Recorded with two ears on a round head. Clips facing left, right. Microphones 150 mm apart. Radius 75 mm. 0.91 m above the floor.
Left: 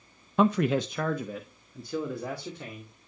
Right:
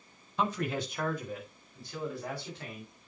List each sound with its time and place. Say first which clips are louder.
0.4 s a man speaking: left 8 dB; 45° left (ahead or behind), 0.5 m; by 3.1 s 80° left, 3 m